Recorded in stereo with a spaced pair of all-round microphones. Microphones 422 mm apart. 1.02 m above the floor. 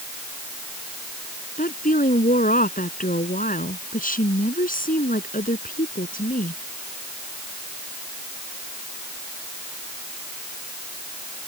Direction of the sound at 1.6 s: 20° left (ahead or behind).